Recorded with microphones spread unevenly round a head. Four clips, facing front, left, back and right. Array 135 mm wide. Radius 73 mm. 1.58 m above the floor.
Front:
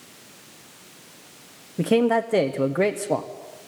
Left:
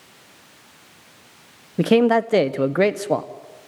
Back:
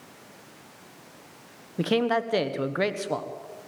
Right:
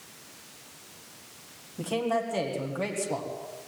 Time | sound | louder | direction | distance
1.8 | a man speaking | left 12 dB, front 4 dB | 75° left | 1.1 m